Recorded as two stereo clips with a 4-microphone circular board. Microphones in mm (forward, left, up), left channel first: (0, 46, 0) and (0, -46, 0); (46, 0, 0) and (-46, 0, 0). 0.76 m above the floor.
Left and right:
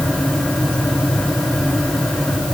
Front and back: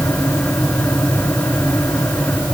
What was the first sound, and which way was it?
Only background noise.